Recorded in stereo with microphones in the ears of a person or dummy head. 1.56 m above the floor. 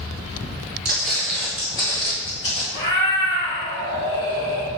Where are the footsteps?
5° right (ahead or behind), 1.7 m; by 2.6 s 45° left (ahead or behind), 2.5 m.